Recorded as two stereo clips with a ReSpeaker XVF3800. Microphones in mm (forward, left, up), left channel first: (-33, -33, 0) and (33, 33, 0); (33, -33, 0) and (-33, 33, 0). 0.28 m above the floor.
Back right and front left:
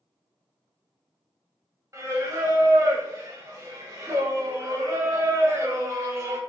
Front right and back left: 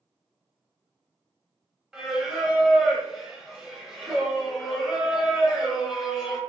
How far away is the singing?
About 0.9 m.